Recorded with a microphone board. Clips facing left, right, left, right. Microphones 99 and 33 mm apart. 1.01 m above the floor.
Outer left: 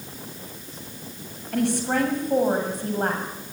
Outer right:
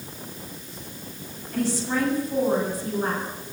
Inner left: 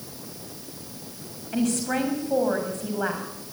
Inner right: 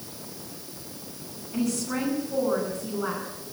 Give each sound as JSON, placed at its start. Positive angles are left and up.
{"t": 1.5, "sound": "a woman speaking", "side_deg": 60, "distance_m": 6.5}